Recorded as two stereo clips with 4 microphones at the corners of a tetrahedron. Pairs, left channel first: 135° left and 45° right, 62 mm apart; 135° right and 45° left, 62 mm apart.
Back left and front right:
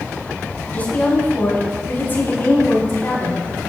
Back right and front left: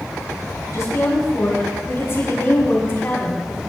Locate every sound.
0.7 s a woman speaking: 165° right, 4 m; by 3.6 s 170° left, 3.5 m